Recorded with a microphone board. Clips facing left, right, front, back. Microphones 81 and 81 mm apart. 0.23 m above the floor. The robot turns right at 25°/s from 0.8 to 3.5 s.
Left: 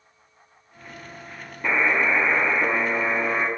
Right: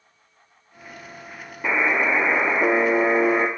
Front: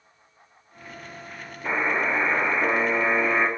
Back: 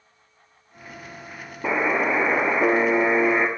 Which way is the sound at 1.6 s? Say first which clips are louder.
Even, back 3 dB; 170° right.